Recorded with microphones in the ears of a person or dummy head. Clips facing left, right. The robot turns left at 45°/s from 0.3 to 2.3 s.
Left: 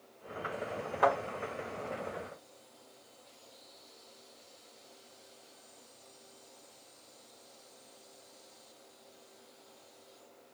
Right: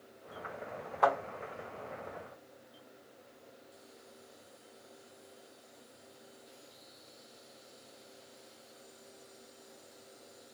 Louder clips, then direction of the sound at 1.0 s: Left 1 dB; 10° left (ahead or behind).